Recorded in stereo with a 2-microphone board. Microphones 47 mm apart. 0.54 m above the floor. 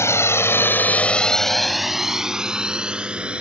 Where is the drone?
70° left (ahead or behind); by 3.4 s 25° right (ahead or behind).